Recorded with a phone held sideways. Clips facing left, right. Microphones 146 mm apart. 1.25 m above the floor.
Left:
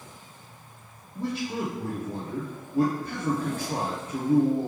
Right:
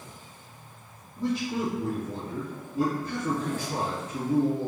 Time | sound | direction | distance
1.1 | a man speaking | 60° left (ahead or behind) | 0.7 m